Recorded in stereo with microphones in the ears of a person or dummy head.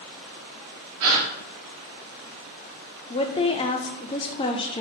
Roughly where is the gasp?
Right.